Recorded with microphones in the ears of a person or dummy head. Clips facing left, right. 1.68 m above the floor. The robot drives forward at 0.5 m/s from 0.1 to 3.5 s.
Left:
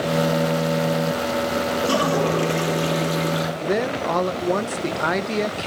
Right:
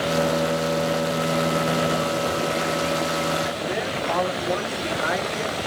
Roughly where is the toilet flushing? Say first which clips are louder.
Left 3 dB; left.